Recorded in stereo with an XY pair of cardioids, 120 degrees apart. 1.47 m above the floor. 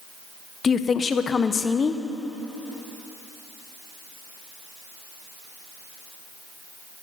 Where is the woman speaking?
35° left, 0.6 m.